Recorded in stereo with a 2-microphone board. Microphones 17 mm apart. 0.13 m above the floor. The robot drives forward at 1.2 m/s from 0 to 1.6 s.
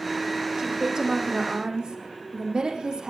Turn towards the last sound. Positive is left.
turn(degrees=-55)  # may be behind; listen again after turning